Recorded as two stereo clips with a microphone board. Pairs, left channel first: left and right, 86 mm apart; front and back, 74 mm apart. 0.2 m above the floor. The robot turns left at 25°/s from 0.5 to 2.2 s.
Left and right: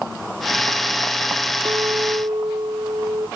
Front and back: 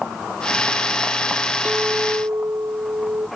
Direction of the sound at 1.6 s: 115° right.